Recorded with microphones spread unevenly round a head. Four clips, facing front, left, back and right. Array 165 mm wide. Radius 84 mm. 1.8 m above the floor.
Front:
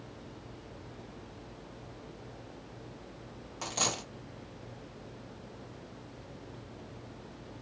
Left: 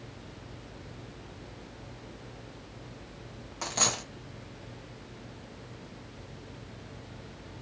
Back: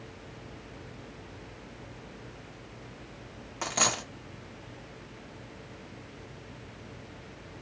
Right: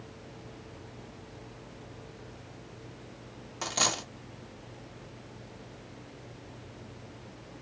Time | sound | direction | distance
3.6 | a dropped coin | 175° left | 1.1 m